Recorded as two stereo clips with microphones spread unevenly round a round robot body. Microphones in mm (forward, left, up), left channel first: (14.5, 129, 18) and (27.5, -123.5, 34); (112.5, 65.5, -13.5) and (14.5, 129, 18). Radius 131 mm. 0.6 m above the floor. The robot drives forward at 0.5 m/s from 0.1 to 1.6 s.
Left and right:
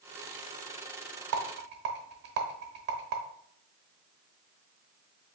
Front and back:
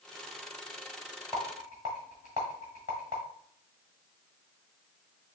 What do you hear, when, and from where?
1.3 s a rattle: 130° right, 0.7 m; by 3.2 s 140° right, 0.8 m